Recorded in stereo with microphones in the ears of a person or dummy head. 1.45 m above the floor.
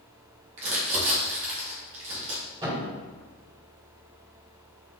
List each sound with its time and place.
0.6 s crumpling: 40° right (ahead or behind), 1.2 m
2.6 s a thud: 25° right (ahead or behind), 1.8 m